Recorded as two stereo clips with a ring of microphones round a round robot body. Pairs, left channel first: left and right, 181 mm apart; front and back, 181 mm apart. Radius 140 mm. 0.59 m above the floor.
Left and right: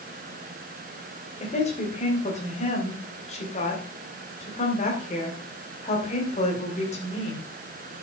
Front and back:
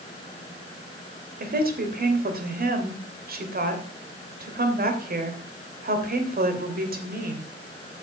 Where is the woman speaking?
150° left, 3 m.